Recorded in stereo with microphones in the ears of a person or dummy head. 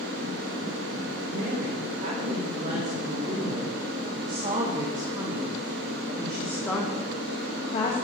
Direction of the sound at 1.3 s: 50° right (ahead or behind).